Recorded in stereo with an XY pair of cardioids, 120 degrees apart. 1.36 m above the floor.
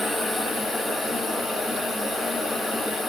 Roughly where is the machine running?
Ahead.